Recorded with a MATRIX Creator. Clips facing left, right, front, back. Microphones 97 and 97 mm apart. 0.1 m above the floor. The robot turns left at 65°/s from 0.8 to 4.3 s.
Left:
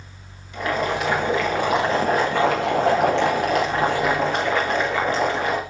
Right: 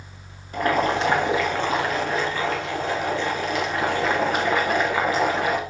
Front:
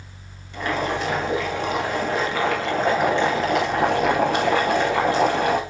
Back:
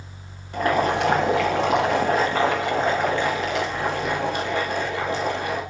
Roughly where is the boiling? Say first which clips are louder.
Right 2 dB, back 4 dB; behind right.